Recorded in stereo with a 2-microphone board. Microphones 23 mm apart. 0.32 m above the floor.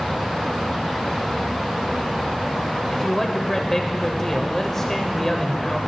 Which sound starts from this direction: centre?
A man speaking, at 2.9 s.